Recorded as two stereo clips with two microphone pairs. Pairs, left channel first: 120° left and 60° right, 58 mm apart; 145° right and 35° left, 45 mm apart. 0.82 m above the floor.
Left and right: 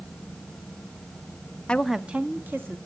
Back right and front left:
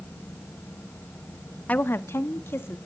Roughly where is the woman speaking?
Behind.